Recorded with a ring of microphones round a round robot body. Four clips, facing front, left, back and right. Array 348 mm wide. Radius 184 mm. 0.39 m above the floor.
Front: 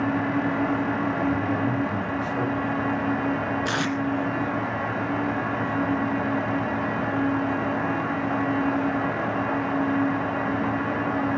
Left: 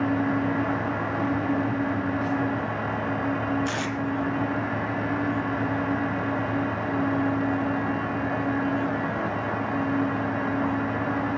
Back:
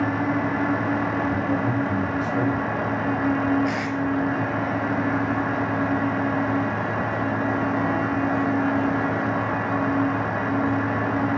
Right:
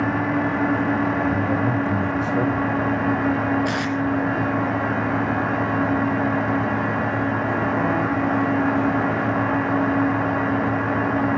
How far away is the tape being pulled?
About 3.5 m.